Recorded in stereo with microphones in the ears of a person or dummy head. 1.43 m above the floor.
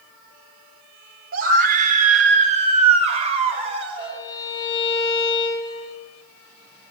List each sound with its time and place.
1.3 s a scream: 55° right (ahead or behind), 4 m; by 4.2 s 35° right (ahead or behind), 6.5 m
4.0 s a violin: 25° left (ahead or behind), 5 m